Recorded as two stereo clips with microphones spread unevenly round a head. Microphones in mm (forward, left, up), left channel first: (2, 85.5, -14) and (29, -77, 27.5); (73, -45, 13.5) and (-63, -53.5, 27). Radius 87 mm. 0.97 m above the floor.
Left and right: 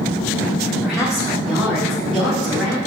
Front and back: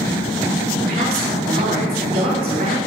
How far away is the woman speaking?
About 3 m.